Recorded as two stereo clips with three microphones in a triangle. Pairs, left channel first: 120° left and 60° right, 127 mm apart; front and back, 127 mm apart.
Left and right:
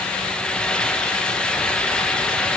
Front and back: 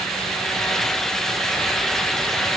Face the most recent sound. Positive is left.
No sound to turn to.